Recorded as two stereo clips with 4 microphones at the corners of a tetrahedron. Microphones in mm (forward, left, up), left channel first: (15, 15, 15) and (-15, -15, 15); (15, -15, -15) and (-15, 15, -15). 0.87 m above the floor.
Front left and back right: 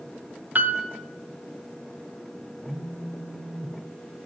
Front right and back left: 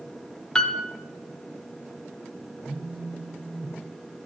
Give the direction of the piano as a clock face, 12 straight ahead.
4 o'clock.